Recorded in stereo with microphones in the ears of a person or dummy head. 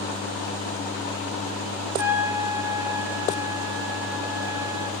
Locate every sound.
1.9 s a trumpet: 15° right (ahead or behind), 3 m